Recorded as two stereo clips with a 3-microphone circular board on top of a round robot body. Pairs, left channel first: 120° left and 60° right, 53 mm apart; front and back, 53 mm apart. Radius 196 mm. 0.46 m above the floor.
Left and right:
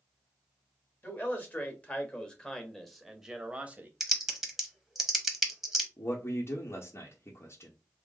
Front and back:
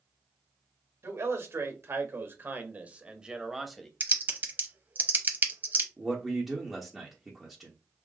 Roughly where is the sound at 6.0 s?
Left.